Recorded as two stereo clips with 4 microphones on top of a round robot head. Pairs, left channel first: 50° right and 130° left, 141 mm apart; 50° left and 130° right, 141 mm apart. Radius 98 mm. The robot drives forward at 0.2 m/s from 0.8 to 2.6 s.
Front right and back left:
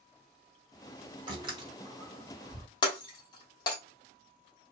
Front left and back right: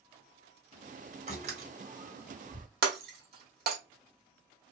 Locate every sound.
1.3 s a door slam: 170° right, 1.6 m
2.8 s breaking glass: 110° right, 0.9 m